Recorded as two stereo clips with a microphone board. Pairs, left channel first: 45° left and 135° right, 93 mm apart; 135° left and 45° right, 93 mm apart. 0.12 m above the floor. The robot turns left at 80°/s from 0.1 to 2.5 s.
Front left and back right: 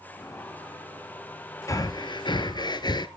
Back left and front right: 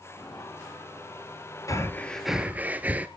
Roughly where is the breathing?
Left.